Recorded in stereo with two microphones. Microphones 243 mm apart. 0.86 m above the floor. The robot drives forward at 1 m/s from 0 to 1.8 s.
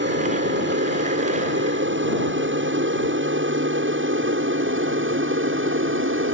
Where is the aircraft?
50° right (ahead or behind); by 6.3 s 55° right (ahead or behind).